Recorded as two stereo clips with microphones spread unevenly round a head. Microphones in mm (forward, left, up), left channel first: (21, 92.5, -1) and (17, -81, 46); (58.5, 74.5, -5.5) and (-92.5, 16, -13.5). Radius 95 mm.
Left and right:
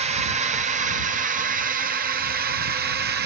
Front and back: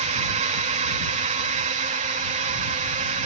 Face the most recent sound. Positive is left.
turn(degrees=-125)